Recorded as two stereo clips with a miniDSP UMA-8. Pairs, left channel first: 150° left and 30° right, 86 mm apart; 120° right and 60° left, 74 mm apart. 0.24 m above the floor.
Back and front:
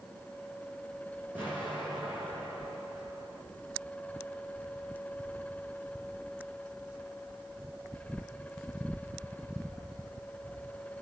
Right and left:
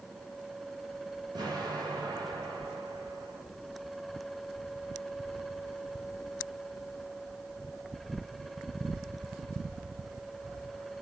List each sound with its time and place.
1.4 s an explosion: 40° left, 6 m